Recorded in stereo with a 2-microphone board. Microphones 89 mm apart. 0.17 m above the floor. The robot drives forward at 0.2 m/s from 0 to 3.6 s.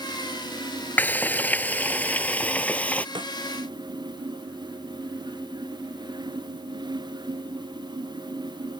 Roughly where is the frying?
Left.